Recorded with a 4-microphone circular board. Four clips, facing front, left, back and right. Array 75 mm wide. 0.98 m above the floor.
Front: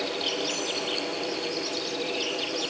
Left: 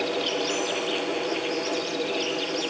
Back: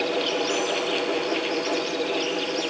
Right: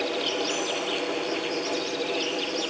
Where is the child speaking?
No child speaking in this recording.